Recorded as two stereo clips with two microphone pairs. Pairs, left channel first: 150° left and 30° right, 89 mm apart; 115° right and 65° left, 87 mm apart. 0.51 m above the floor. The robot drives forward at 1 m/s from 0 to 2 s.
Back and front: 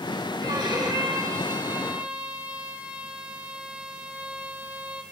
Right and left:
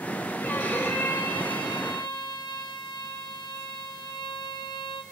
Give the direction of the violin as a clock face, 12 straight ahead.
2 o'clock.